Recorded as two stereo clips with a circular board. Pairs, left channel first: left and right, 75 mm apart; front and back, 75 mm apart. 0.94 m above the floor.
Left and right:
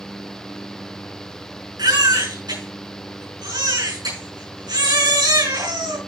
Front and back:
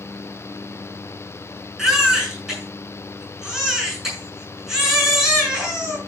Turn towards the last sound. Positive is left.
turn(degrees=-95)